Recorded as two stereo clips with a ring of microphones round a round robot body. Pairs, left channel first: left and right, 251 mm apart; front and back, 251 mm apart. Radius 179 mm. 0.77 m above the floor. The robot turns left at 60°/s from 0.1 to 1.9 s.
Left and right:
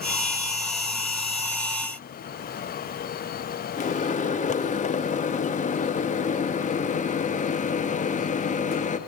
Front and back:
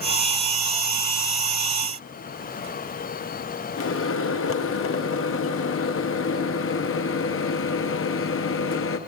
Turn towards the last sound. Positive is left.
turn(degrees=30)